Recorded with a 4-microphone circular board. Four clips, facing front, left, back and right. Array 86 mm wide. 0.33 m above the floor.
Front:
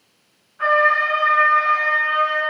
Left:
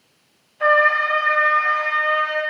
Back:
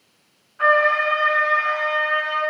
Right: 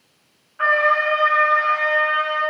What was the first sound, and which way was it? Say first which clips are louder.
A trumpet: left 1 dB, even; 105° right.